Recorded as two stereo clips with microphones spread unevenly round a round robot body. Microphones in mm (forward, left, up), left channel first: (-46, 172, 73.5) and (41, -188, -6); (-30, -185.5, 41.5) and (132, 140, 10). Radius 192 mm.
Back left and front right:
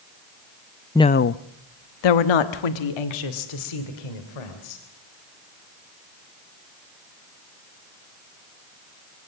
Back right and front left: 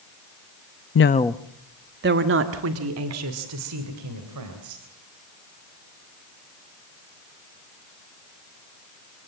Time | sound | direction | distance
0.9 | a woman speaking | 160° right | 0.6 m